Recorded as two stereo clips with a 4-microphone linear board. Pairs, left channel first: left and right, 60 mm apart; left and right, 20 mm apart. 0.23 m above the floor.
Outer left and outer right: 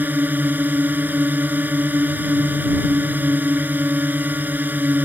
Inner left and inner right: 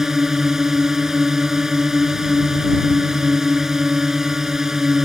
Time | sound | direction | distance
0.0 | a drone | 30° right (ahead or behind) | ?